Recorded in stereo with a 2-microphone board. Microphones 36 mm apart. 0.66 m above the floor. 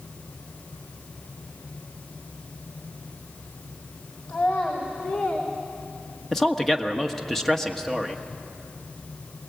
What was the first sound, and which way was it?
A child speaking, 50° left (ahead or behind).